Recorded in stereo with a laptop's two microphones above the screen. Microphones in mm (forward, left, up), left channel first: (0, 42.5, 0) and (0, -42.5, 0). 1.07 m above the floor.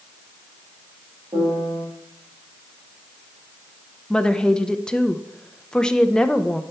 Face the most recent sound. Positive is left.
turn(degrees=10)  # may be behind; listen again after turning